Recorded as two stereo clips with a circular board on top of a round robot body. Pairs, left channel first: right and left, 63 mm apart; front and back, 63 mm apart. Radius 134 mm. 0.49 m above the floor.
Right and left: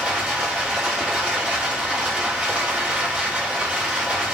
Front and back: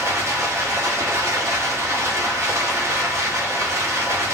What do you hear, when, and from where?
0.0 s running water: 155° left, 1.4 m